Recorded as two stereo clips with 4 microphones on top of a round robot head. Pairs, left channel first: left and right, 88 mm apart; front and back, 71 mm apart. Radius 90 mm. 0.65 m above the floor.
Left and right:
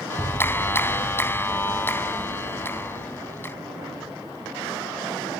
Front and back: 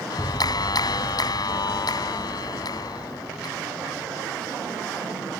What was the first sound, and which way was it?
A clap, 25° left.